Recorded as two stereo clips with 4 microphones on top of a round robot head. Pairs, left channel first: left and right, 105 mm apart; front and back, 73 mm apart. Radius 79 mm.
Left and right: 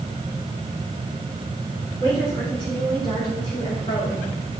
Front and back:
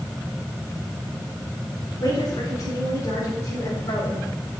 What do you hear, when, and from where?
2.0 s a woman speaking: 40° left, 3.5 m; by 4.3 s 45° left, 4.5 m